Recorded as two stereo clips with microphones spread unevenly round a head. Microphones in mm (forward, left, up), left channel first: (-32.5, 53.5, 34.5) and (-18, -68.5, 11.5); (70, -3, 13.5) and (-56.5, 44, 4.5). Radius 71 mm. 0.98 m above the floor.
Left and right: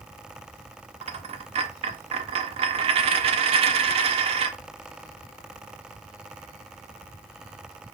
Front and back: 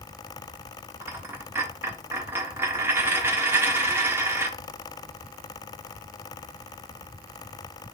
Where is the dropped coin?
125° right, 0.6 m.